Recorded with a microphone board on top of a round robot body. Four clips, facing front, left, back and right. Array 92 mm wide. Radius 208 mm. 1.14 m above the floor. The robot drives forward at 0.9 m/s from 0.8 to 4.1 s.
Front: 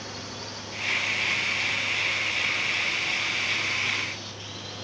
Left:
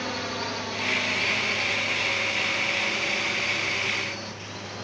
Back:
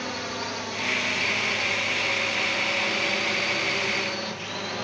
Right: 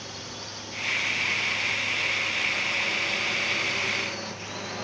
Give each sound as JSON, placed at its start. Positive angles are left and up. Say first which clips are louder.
{"t": 0.0, "sound": "a drone", "louder": "left 10 dB, back 7 dB", "azimuth_deg": 125}